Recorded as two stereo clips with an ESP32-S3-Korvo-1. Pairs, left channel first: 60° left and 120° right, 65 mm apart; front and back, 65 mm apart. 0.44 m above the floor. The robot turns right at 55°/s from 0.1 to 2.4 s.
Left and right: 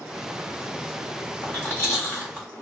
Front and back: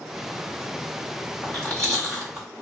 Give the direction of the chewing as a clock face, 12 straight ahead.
10 o'clock.